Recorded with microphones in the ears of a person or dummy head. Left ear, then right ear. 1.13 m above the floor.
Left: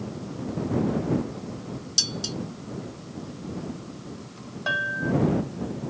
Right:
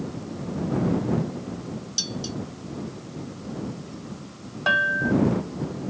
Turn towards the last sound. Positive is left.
turn(degrees=-25)  # may be behind; listen again after turning